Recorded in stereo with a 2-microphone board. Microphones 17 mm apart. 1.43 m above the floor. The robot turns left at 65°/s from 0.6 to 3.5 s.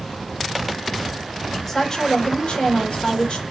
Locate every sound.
1.7 s a woman speaking: 175° left, 1.8 m; by 3.4 s 60° left, 1.8 m